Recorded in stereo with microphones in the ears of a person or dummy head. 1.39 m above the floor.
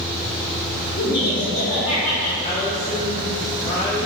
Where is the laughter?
45° left (ahead or behind), 2 m; by 2.3 s 85° left, 3 m.